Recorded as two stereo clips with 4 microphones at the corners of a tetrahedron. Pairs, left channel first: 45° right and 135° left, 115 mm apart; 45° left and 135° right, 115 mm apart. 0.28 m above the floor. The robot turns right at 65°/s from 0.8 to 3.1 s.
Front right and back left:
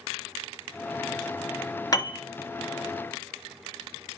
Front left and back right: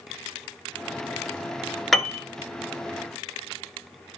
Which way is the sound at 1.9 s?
45° right.